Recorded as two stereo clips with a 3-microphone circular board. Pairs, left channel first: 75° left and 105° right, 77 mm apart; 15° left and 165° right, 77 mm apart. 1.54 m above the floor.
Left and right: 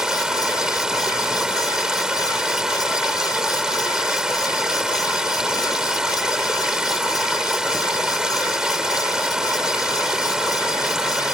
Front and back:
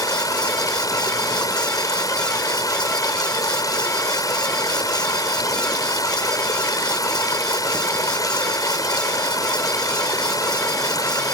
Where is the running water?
25° right.